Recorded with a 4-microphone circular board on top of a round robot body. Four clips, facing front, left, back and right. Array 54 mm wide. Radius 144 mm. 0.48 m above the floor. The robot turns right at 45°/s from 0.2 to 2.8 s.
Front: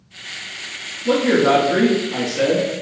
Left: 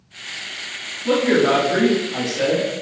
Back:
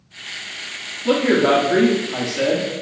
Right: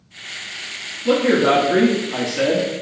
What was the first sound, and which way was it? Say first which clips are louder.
A man speaking: right 1 dB, even; 170° right.